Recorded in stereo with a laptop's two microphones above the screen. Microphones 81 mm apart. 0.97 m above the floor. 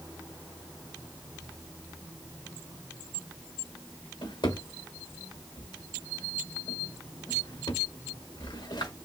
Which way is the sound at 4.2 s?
75° left (ahead or behind).